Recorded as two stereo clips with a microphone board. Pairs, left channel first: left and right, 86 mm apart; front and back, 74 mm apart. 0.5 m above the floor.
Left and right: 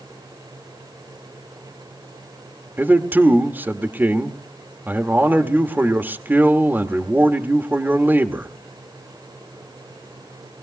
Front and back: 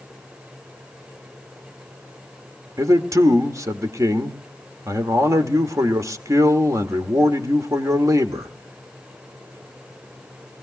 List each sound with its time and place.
2.8 s a man speaking: 150° right, 1.3 m